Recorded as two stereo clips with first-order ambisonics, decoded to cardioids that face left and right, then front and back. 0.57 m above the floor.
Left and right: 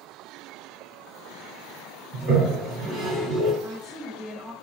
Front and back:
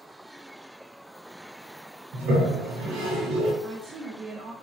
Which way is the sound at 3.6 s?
175° right.